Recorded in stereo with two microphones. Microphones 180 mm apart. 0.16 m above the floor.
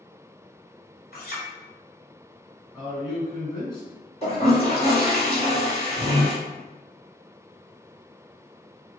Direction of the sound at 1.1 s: 55° left (ahead or behind).